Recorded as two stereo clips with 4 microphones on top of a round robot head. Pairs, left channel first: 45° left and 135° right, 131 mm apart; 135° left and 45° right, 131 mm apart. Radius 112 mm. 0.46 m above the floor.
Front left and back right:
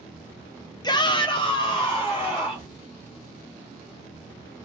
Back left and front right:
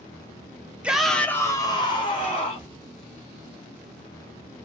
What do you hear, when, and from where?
0.8 s a shout: 30° left, 0.8 m; by 2.7 s 100° left, 1.5 m